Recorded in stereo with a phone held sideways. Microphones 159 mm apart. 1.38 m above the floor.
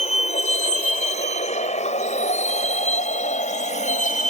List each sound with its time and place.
0.0 s a vehicle: 45° left (ahead or behind)